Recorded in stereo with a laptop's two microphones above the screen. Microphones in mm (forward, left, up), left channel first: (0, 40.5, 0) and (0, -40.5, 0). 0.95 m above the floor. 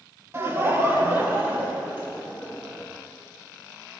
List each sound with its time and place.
0.3 s laughter: 35° right (ahead or behind), 1.6 m; by 2.8 s 20° right (ahead or behind), 4.5 m